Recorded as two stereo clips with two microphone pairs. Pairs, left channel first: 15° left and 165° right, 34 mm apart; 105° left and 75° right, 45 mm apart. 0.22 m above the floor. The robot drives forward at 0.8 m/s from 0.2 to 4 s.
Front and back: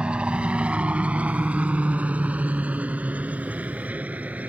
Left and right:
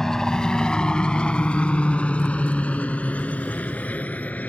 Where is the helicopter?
170° left; by 4.5 s 150° left.